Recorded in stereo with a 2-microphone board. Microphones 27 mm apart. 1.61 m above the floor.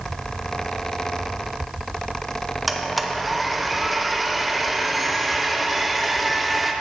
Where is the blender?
5° right (ahead or behind), 0.6 m.